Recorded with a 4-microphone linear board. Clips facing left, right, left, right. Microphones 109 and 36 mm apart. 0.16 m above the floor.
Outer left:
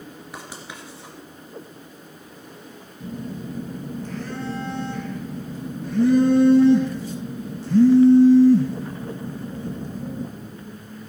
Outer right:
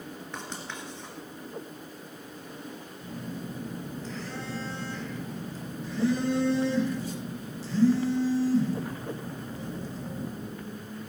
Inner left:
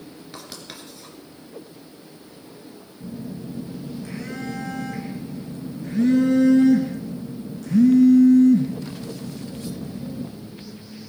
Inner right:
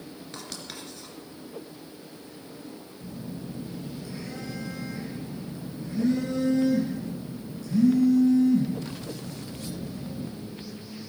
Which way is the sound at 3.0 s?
55° left (ahead or behind).